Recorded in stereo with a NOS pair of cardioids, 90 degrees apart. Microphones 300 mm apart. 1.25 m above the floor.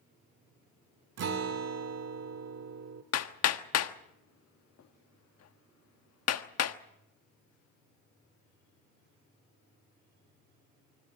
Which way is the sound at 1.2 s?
60° right.